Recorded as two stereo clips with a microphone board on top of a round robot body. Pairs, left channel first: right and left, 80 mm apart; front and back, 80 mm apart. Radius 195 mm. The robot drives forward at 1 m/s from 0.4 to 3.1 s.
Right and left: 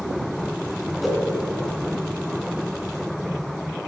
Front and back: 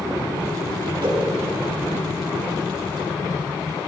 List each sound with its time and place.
1.0 s a whoosh: straight behind, 3.5 m